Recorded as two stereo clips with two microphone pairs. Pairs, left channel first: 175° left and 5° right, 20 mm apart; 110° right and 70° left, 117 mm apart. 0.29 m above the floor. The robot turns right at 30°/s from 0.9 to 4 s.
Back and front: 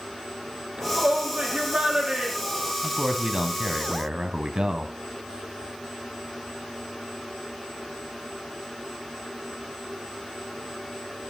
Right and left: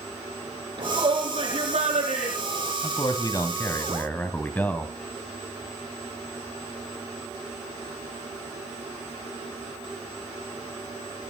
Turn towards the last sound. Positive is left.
turn(degrees=-35)